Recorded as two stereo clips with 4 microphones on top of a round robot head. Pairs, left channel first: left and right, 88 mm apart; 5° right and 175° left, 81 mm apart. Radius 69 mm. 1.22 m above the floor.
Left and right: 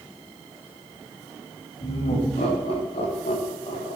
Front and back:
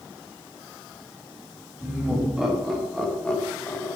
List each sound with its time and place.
1.8 s laughter: 95° left, 3 m; by 4.0 s 50° left, 1.3 m